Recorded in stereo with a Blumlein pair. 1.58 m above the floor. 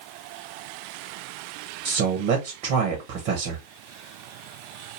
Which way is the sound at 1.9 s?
45° right.